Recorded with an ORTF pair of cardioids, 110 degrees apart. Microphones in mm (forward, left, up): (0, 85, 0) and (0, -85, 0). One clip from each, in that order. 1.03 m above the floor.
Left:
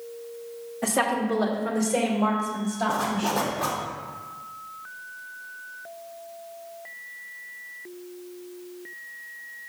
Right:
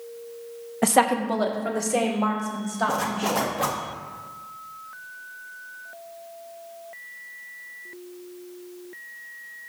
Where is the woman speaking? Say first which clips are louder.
Right 4 dB; 55° right, 0.9 m; by 3.5 s 25° right, 4.5 m.